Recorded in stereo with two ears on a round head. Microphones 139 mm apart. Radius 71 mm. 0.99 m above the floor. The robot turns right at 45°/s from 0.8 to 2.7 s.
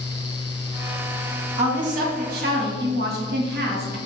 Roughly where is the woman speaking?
Behind right.